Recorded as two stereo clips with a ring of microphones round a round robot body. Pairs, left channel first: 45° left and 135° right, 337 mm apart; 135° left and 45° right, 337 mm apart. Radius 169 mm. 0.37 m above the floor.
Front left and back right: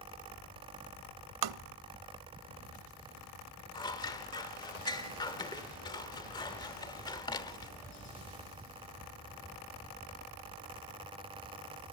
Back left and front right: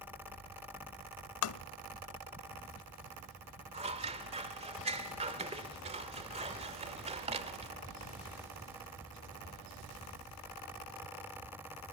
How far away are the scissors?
About 1.5 m.